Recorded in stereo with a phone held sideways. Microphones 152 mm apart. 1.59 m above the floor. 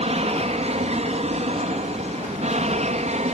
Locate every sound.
0.0 s an aircraft: 45° right (ahead or behind); by 3.3 s 50° right (ahead or behind)